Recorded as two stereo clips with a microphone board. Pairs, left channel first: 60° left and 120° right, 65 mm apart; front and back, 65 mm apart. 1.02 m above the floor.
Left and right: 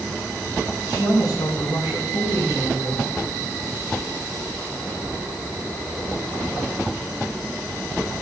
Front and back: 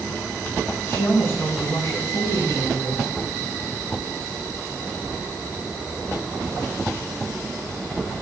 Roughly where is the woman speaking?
Ahead left.